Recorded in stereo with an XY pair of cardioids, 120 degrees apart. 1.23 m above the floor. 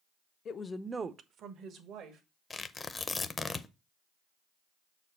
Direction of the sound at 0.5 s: 50° left.